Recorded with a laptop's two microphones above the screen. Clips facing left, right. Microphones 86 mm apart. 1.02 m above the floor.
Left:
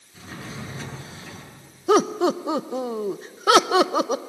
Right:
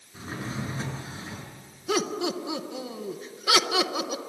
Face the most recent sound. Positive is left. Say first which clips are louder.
# left 9 dB
turn(degrees=40)  # may be behind; listen again after turning